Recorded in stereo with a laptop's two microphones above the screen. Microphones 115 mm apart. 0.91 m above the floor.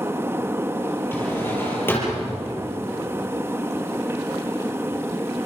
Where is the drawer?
20° left (ahead or behind), 5.5 m.